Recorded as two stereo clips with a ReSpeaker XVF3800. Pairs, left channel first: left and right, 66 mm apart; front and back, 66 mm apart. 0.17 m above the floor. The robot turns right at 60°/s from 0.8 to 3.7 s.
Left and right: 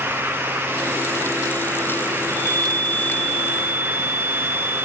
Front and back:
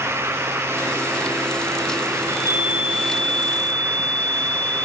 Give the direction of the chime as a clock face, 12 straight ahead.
8 o'clock.